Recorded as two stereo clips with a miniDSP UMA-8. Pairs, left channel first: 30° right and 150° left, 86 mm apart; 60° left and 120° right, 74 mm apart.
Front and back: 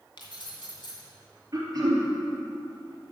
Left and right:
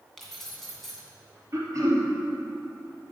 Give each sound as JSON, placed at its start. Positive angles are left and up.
{"t": 0.2, "sound": "keys jangling", "azimuth_deg": -25, "distance_m": 2.0}
{"t": 1.5, "sound": "throat clearing", "azimuth_deg": -165, "distance_m": 3.0}